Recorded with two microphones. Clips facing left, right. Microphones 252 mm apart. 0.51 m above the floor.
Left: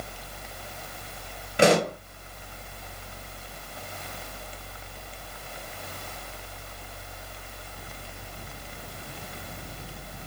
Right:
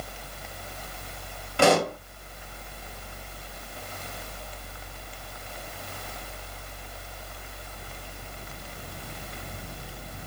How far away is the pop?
About 2 m.